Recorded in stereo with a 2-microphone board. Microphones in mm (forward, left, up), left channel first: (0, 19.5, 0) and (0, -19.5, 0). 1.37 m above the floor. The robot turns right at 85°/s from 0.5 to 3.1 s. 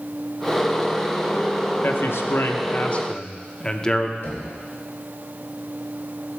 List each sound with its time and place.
1.8 s a man speaking: 50° left, 0.9 m; by 4.1 s 160° left, 0.9 m
4.2 s knocking: 80° left, 4 m